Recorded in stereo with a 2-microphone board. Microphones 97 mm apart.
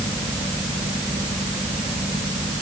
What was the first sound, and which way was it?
Only background noise.